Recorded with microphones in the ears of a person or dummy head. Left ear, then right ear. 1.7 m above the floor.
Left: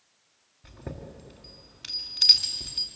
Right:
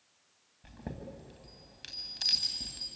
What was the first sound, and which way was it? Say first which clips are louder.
A chime: left 3 dB; 10° right (ahead or behind).